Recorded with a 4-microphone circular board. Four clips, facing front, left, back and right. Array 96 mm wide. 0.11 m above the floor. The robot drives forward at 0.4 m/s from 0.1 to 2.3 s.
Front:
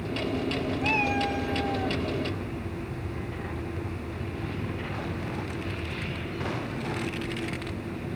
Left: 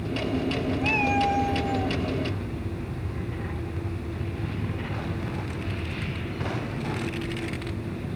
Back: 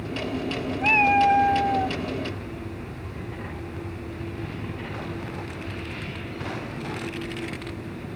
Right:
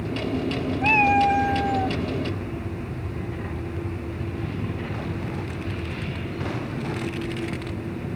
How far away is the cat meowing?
About 0.7 m.